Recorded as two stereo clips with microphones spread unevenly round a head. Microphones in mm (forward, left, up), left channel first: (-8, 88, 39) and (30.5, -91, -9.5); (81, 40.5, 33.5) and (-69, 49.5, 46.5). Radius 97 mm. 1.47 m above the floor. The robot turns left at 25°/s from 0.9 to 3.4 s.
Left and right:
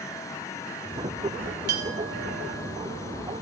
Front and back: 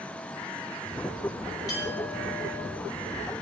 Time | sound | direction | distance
1.7 | a clink | 75° right | 1.6 m